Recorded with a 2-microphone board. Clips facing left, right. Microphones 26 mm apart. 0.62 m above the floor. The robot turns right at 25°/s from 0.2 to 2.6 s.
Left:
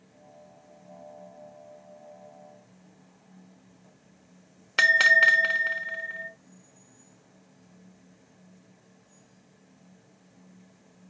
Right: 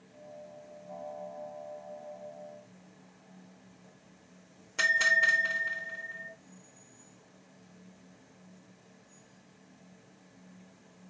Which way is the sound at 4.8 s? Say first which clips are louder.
Left 7 dB; 70° left (ahead or behind).